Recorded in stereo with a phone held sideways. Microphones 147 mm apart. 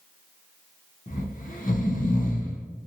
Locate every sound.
1.1 s snoring: 70° left (ahead or behind), 0.9 m